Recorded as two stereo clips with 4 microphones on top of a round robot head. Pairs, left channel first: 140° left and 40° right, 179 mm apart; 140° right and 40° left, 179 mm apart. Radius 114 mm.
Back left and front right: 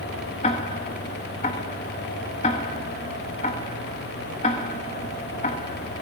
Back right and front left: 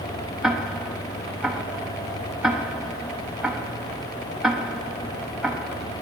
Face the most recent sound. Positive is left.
turn(degrees=125)